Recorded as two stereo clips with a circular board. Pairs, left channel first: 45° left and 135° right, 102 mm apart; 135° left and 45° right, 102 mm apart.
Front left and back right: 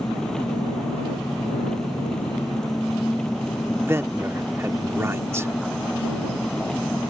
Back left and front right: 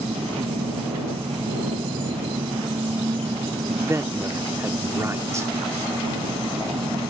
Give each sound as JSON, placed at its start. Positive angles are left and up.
{"t": 0.0, "sound": "an engine running", "azimuth_deg": -40}
{"t": 3.8, "sound": "a man speaking", "azimuth_deg": -90}